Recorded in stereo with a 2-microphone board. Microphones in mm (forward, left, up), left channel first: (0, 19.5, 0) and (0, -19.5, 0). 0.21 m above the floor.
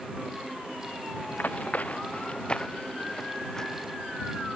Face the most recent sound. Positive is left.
turn(degrees=15)  # may be behind; listen again after turning